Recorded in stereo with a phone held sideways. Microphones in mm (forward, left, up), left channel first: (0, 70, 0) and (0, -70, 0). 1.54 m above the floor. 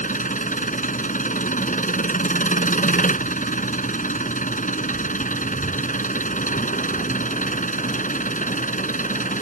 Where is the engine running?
65° left (ahead or behind).